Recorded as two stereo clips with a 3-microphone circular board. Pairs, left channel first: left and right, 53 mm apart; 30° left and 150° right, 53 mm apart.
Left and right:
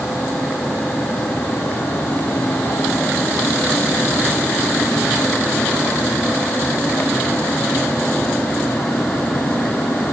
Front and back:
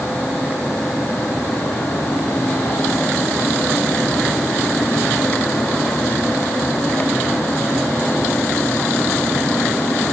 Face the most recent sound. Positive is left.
No sound to turn to.